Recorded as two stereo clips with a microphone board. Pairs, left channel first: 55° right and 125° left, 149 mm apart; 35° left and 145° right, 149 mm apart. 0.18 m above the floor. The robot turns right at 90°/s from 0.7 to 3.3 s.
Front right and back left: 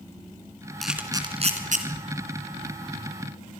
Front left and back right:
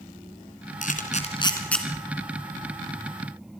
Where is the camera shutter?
30° left, 3 m; by 1.8 s 125° left, 3 m.